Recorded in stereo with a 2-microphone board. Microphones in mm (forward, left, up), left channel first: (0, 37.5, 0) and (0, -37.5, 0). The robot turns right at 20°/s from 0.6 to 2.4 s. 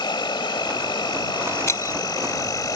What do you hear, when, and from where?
0.0 s an insect: 90° left; by 2.8 s 125° left
1.7 s breaking glass: 40° left (ahead or behind); by 2.0 s 45° left (ahead or behind)